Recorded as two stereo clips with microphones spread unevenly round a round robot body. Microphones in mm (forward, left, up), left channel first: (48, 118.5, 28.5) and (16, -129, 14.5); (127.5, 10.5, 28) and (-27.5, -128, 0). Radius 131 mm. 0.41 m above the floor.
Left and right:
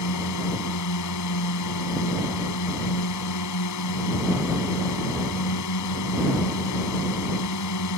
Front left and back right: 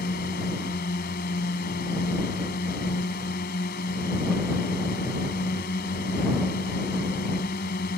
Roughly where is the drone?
Left.